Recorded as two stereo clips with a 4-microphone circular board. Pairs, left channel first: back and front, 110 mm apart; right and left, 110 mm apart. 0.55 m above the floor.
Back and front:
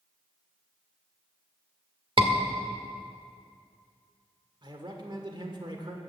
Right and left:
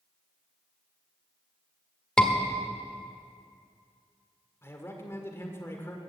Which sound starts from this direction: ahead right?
A man speaking, at 4.6 s.